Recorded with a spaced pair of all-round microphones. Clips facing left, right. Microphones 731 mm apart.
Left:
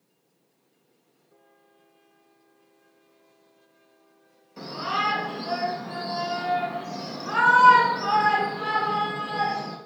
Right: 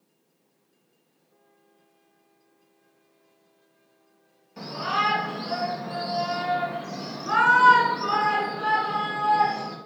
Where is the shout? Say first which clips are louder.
Right 1 dB; 25° right (ahead or behind), 1.8 m; by 9.8 s 45° left (ahead or behind), 1.2 m.